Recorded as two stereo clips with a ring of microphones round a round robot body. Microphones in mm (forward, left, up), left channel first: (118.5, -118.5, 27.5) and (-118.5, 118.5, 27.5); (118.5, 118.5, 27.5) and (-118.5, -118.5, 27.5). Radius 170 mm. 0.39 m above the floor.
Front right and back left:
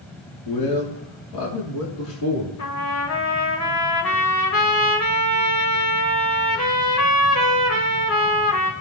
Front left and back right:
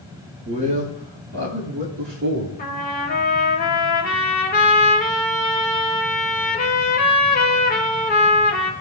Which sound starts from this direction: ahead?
A trumpet, at 2.6 s.